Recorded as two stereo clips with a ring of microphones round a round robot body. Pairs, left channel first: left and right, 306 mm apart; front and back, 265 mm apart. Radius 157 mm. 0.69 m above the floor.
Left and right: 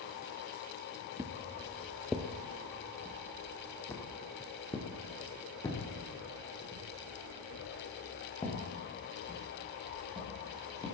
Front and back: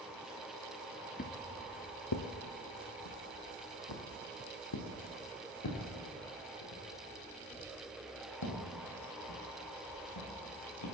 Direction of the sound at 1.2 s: 20° right.